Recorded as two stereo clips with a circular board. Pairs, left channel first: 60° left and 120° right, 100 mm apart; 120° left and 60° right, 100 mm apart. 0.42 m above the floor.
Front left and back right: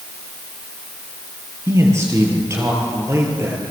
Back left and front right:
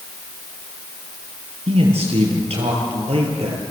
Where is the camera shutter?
No camera shutter in this recording.